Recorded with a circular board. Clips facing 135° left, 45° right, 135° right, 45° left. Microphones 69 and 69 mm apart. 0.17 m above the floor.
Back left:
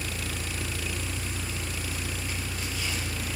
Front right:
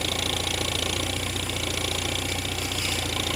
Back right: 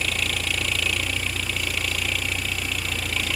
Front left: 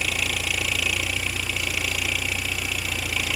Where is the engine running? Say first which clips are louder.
Front right 6 dB, even; 40° right.